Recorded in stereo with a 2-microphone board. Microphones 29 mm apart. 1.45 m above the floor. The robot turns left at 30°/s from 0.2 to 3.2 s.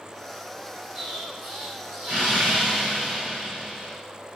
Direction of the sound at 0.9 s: 35° right.